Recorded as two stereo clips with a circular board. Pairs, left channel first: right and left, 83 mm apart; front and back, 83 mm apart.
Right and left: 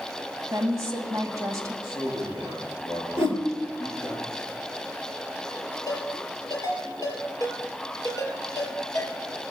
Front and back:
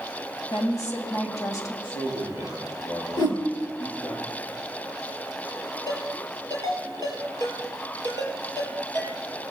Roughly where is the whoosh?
Ahead left.